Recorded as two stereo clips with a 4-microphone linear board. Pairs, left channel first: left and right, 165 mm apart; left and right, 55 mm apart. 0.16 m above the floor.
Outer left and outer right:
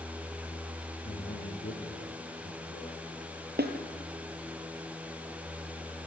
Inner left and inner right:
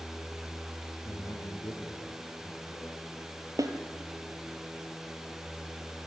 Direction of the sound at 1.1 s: 65° left (ahead or behind).